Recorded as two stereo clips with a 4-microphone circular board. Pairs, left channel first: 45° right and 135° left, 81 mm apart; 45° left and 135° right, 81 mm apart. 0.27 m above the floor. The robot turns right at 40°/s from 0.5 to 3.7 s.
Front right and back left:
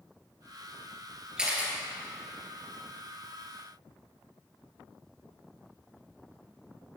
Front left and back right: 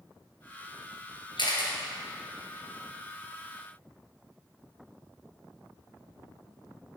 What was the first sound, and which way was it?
A camera shutter, 55° left.